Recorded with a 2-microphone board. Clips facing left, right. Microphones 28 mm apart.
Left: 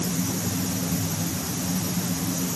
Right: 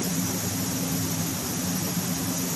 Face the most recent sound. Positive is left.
No sound to turn to.